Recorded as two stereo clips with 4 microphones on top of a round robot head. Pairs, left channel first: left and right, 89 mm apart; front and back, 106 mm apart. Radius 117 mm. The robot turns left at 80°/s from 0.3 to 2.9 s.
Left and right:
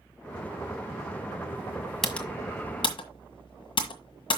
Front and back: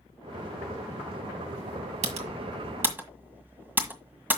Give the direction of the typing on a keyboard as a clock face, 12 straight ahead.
6 o'clock.